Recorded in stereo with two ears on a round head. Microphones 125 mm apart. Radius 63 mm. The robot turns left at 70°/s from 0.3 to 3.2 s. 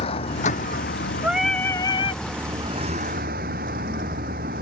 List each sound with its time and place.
0.0 s a vehicle: 135° left; by 4.6 s 70° right
1.2 s singing: 165° right; by 2.2 s 125° left